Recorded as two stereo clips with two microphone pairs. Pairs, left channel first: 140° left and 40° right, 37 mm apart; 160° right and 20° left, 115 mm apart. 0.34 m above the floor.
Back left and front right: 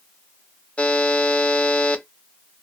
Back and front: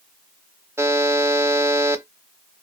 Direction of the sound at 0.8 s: 90° left.